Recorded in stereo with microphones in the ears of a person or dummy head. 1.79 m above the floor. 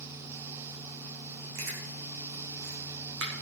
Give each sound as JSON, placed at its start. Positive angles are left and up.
{"t": 1.6, "sound": "chewing", "side_deg": -80, "distance_m": 3.0}